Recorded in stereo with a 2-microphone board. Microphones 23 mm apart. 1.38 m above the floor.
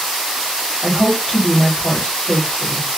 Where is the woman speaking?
35° left (ahead or behind), 2.5 m.